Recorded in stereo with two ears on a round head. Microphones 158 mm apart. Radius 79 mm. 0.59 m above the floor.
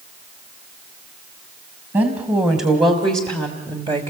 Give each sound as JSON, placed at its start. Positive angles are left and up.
{"t": 1.9, "sound": "a woman speaking", "side_deg": -20, "distance_m": 3.0}